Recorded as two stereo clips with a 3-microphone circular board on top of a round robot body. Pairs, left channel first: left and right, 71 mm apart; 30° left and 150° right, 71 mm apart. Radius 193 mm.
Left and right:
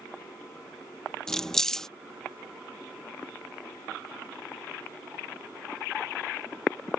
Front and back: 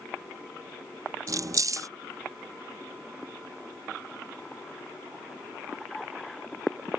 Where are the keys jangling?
170° left.